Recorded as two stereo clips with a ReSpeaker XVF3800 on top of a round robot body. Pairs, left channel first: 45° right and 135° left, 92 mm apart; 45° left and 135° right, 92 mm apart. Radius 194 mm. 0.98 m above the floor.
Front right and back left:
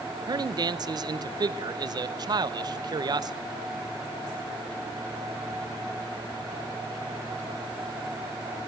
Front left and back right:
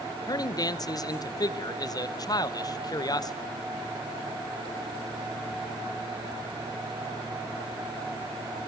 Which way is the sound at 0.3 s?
90° left.